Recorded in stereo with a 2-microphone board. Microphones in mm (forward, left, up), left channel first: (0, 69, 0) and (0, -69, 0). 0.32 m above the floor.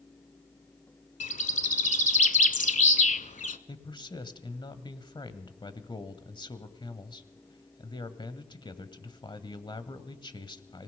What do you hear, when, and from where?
1.2 s a bird: 65° left (ahead or behind), 0.8 m
3.7 s a man speaking: 35° left (ahead or behind), 1.4 m